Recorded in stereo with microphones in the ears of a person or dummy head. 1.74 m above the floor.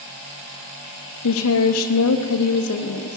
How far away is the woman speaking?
About 1.0 m.